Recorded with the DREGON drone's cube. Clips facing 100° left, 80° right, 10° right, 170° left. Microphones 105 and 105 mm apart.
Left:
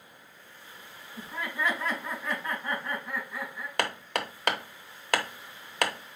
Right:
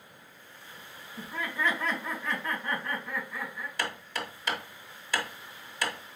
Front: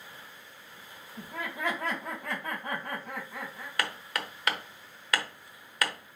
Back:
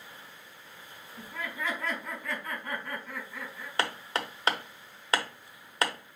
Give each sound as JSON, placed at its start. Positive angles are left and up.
{"t": 1.2, "sound": "laughter", "azimuth_deg": 20, "distance_m": 3.5}
{"t": 3.8, "sound": "hammering", "azimuth_deg": 110, "distance_m": 0.7}